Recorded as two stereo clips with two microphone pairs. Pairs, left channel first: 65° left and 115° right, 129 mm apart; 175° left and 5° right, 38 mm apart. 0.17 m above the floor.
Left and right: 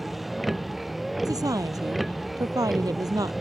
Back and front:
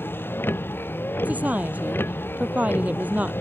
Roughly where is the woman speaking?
Ahead right.